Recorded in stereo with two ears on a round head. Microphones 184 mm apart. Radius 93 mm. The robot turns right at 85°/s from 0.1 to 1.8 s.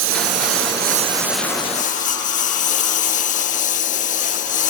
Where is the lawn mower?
105° right; by 4.7 s 35° left.